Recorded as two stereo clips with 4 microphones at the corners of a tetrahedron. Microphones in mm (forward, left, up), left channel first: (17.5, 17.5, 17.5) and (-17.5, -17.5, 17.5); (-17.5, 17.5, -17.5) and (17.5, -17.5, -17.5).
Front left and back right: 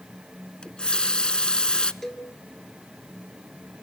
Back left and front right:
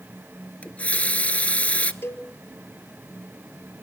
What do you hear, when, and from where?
0.6 s a running tap: 100° left, 0.9 m
2.0 s a cowbell: 125° left, 2.5 m